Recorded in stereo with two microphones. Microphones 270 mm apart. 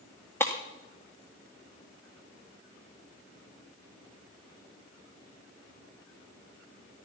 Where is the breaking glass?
10° left (ahead or behind), 1.8 m.